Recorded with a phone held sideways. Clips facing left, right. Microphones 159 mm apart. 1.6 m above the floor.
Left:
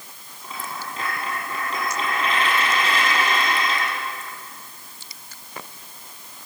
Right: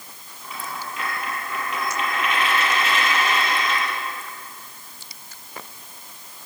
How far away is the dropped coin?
About 8 m.